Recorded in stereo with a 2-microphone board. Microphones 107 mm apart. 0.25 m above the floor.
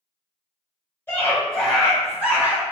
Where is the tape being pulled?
I don't hear tape being pulled.